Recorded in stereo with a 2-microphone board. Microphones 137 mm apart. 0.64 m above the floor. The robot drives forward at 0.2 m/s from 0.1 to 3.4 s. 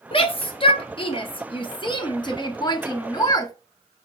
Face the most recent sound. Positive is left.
turn(degrees=25)  # may be behind; listen again after turning